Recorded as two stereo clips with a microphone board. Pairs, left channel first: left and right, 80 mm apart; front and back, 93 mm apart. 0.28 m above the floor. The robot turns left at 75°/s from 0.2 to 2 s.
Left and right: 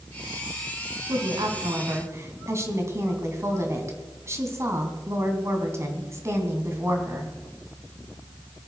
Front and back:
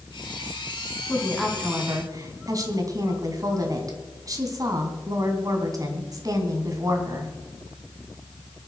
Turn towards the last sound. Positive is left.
turn(degrees=-135)